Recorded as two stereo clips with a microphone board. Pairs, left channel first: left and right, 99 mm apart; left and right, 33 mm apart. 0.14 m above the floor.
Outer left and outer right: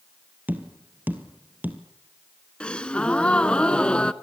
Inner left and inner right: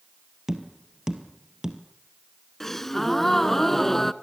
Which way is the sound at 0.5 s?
20° right (ahead or behind).